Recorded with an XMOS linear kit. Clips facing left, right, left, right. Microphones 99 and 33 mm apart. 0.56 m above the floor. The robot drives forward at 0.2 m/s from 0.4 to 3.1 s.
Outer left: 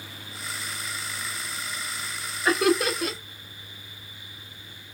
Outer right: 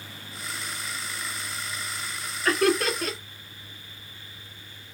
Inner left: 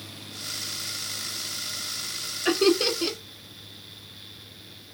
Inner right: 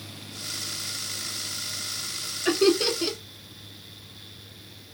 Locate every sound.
2.5 s laughter: 15° left (ahead or behind), 0.6 m; by 3.2 s 10° left (ahead or behind), 0.7 m